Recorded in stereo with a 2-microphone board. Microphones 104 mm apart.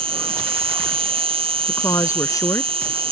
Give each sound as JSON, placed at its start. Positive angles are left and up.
{"t": 0.0, "sound": "an insect", "side_deg": -65}
{"t": 1.7, "sound": "a woman speaking", "side_deg": 30}